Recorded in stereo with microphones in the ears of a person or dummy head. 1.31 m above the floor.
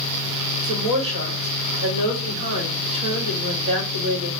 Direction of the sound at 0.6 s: 30° right (ahead or behind).